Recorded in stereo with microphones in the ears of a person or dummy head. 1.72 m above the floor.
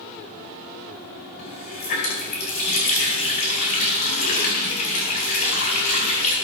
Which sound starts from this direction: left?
A running tap, at 1.4 s.